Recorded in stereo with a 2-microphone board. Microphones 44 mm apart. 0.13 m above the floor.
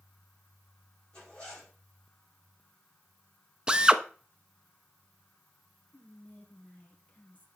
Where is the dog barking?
I don't hear a dog barking.